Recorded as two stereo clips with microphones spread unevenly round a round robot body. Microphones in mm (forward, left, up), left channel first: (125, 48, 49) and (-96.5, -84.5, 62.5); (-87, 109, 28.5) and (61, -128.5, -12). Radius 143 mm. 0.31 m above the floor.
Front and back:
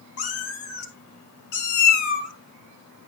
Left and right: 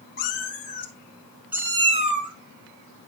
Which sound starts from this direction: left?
A cat meowing, at 0.2 s.